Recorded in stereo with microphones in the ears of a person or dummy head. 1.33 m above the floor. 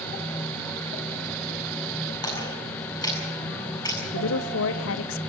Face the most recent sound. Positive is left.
turn(degrees=70)  # may be behind; listen again after turning